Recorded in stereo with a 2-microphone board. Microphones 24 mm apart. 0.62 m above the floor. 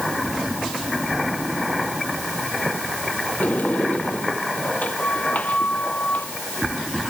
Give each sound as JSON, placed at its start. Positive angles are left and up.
{"t": 3.4, "sound": "a sliding door", "side_deg": 75}